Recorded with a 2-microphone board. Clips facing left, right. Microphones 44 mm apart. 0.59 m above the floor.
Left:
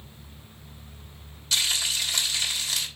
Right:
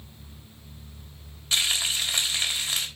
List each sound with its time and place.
1.5 s frying: 30° right (ahead or behind), 3 m